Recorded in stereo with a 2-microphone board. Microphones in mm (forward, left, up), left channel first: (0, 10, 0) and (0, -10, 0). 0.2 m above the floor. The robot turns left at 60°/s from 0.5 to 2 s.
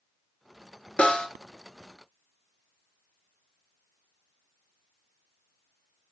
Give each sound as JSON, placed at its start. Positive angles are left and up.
{"t": 1.0, "sound": "a snare drum", "side_deg": 80, "distance_m": 0.5}